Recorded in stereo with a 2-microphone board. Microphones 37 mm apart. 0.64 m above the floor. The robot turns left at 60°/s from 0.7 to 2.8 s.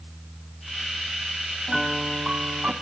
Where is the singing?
I don't hear singing.